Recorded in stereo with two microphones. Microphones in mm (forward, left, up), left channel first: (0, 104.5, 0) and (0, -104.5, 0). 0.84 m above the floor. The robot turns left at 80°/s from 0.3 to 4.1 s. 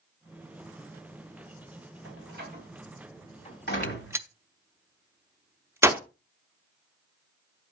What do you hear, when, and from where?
2.0 s a door slam: 80° right, 3 m; by 4.2 s 85° left, 3 m
3.8 s a gunshot: 10° left (ahead or behind), 0.7 m; by 6.0 s 10° right (ahead or behind), 0.7 m